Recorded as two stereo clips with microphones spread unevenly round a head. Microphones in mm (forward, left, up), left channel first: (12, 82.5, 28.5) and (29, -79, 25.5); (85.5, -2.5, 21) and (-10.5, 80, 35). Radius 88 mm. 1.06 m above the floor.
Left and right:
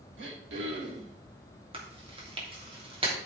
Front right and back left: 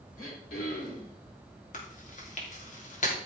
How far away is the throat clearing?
About 3.5 m.